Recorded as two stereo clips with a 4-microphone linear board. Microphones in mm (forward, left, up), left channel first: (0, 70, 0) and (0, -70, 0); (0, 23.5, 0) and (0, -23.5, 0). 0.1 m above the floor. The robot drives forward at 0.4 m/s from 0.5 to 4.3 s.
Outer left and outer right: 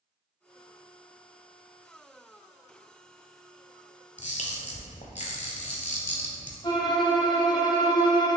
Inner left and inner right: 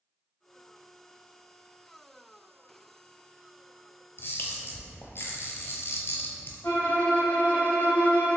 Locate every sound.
4.2 s a camera shutter: 55° left (ahead or behind), 0.5 m
6.6 s a violin: 35° left (ahead or behind), 0.6 m